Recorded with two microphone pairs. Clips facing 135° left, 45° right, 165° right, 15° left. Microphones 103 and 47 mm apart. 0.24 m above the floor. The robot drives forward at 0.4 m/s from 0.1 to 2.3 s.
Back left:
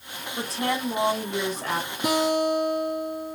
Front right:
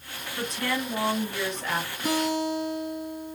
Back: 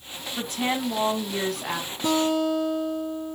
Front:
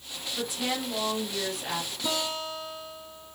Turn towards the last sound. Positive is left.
turn(degrees=155)